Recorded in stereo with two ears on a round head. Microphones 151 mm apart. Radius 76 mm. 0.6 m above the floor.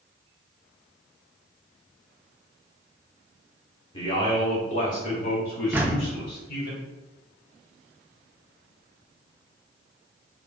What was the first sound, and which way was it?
A man speaking, 30° left (ahead or behind).